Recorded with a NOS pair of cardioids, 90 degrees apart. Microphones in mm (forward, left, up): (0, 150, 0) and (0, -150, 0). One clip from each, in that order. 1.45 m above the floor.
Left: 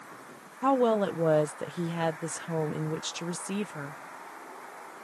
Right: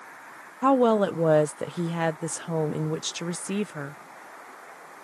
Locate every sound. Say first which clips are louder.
0.6 s a woman speaking: right 4 dB; 25° right